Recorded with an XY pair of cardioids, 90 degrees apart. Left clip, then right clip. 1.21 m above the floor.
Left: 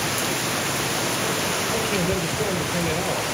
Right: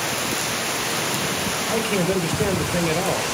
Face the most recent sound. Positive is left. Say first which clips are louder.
# right 1 dB
turn(degrees=-35)